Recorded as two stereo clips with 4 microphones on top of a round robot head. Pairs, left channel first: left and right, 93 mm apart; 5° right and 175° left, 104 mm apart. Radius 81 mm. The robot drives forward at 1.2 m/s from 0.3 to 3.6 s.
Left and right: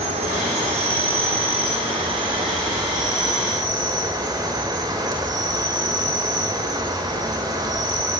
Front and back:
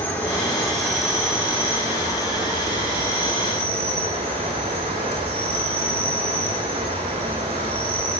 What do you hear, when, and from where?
0.0 s an insect: 80° right, 3.5 m; by 8.2 s 135° right, 5 m